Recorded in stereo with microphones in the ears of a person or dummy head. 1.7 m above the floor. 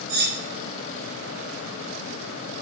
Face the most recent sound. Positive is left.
turn(degrees=-70)  # may be behind; listen again after turning